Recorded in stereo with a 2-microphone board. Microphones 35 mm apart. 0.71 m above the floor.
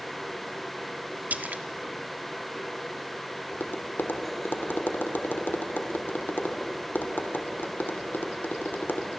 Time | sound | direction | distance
1.3 | a splash | 50° right (ahead or behind) | 1.4 m
3.5 | tapping | 65° left (ahead or behind) | 2.5 m